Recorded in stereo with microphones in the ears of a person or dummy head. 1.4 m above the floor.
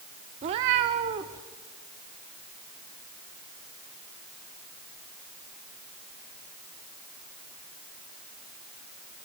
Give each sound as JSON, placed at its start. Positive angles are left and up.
{"t": 0.4, "sound": "a cat meowing", "side_deg": -35, "distance_m": 1.1}